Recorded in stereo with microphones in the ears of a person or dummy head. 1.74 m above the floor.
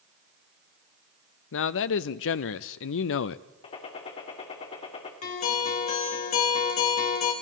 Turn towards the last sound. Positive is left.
turn(degrees=40)  # may be behind; listen again after turning